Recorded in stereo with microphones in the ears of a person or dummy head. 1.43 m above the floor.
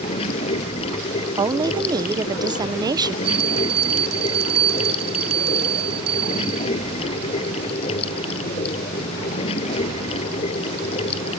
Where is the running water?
35° left (ahead or behind).